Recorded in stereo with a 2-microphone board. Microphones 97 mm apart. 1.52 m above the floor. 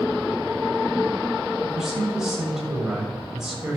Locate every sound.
1.6 s a man speaking: 5° right (ahead or behind), 7 m